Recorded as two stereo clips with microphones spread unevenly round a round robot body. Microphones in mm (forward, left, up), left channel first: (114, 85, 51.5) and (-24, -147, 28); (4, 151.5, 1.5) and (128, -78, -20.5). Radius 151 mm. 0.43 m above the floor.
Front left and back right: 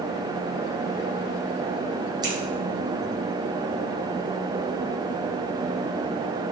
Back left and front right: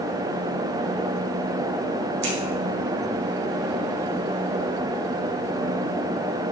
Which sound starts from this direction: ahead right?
Scissors, at 2.2 s.